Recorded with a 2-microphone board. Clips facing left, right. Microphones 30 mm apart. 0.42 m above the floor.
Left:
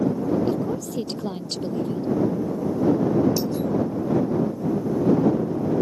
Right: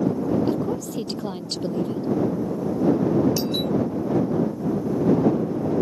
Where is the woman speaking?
5° right (ahead or behind).